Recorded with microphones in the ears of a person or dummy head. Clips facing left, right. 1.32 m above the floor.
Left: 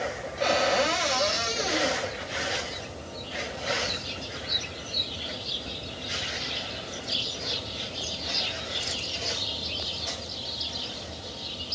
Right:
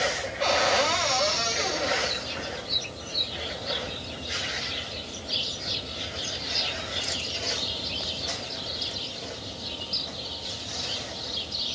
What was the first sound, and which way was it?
A cupboard door, 30° left (ahead or behind).